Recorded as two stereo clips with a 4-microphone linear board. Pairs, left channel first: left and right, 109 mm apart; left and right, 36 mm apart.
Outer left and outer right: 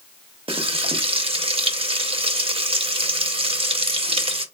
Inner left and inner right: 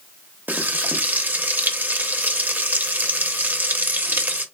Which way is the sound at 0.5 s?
60° right (ahead or behind).